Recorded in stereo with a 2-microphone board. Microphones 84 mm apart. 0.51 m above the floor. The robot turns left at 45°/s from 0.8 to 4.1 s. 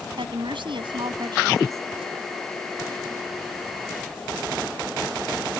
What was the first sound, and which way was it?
A woman speaking, 100° right.